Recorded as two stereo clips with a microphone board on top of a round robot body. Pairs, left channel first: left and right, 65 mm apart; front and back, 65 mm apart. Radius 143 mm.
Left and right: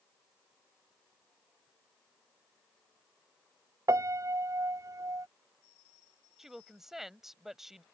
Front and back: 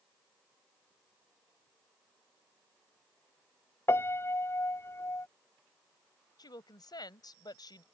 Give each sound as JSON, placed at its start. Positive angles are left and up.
{"t": 3.9, "sound": "a piano", "azimuth_deg": -50}
{"t": 6.4, "sound": "a woman speaking", "azimuth_deg": -5}